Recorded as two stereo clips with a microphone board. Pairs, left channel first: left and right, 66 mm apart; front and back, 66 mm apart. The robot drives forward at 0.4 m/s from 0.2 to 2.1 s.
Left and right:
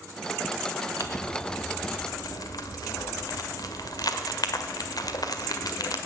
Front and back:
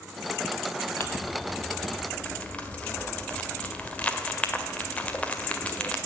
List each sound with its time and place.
1.0 s crumpling: 55° left, 1.7 m; by 6.0 s 70° left, 1.5 m